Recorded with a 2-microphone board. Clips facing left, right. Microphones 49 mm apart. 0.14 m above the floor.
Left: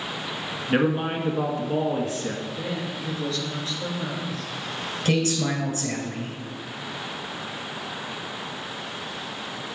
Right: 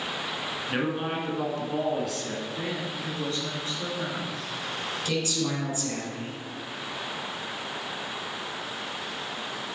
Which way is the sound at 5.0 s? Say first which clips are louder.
Left 6 dB; 50° left (ahead or behind).